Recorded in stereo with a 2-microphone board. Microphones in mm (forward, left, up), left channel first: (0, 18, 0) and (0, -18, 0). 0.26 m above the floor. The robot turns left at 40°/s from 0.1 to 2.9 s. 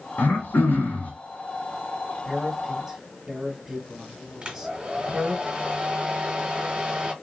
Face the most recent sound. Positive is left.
turn(degrees=-25)  # may be behind; listen again after turning